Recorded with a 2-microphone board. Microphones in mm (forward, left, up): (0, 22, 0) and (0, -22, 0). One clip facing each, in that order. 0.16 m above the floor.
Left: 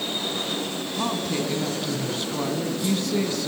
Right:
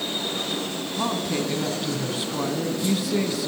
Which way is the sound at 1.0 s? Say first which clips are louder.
Right 1 dB; 5° right (ahead or behind).